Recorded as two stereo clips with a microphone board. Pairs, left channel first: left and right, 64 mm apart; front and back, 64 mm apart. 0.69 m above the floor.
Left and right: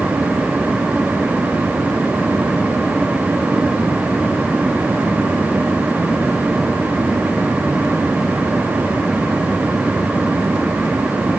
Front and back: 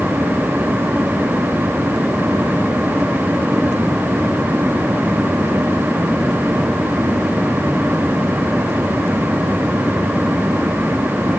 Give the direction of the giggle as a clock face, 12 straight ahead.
No giggle in this recording.